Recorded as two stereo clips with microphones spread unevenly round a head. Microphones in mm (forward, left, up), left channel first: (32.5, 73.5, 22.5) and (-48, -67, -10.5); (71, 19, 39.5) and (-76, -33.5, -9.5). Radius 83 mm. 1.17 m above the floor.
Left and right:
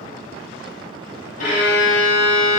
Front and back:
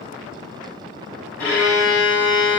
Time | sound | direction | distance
1.4 | a violin | 100° left | 6 m